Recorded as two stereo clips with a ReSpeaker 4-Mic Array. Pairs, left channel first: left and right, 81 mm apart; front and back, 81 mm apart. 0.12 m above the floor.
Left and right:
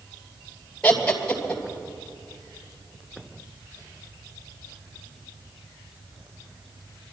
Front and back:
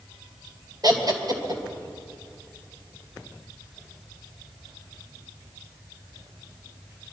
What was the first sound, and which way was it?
Laughter, 165° left.